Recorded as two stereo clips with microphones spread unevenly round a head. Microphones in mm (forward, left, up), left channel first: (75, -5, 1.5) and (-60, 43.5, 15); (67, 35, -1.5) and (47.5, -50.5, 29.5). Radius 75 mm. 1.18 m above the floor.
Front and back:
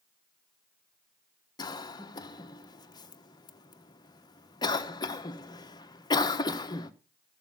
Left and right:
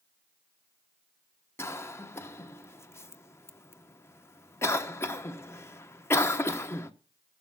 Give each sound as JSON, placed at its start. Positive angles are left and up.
{"t": 1.6, "sound": "a cough", "azimuth_deg": 35, "distance_m": 1.2}